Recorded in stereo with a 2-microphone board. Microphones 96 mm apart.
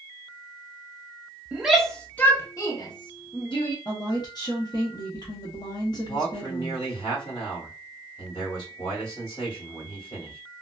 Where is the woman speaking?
45° left (ahead or behind), 0.8 m.